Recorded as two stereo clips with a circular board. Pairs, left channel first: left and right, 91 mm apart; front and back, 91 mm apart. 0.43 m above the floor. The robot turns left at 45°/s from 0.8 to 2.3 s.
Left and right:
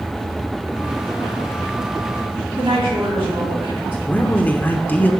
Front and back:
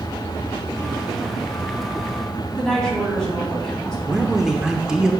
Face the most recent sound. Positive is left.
turn(degrees=110)